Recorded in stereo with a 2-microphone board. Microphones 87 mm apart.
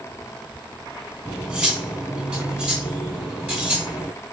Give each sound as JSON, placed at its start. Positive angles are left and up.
{"t": 1.2, "sound": "cutlery clinking", "side_deg": -15, "distance_m": 1.2}